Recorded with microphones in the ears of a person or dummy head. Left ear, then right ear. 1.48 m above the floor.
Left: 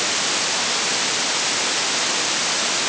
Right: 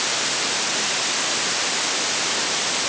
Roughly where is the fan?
No fan in this recording.